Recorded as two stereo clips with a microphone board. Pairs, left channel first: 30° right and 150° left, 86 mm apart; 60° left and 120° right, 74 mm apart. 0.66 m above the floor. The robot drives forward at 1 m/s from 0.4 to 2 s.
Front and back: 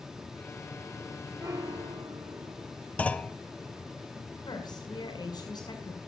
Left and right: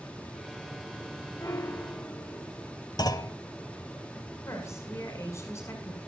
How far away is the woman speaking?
About 6 m.